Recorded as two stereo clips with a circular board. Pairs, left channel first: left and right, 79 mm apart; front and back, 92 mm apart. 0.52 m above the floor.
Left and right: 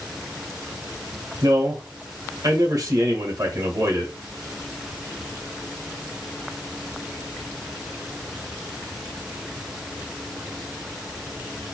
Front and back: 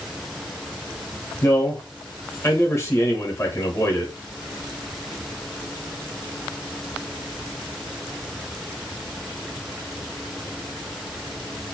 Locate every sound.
1.4 s a man speaking: 55° right, 2 m